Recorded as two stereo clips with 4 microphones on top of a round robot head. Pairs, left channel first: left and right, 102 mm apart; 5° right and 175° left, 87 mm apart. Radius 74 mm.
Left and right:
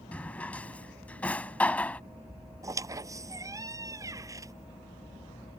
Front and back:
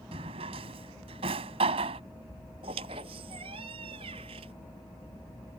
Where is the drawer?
165° left.